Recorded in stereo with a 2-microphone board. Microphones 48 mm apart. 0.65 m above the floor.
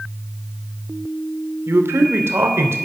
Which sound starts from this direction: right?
A man speaking, at 1.7 s.